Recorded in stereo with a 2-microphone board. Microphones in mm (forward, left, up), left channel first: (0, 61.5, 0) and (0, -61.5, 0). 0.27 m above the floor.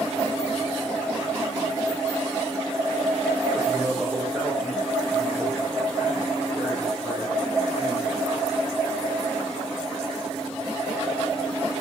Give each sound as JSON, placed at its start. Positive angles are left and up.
{"t": 3.5, "sound": "a man speaking", "side_deg": -10, "distance_m": 10.0}